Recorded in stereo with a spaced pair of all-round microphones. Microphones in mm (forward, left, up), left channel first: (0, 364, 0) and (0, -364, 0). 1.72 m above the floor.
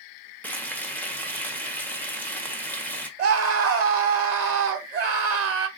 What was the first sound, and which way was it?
Frying, centre (ahead or behind).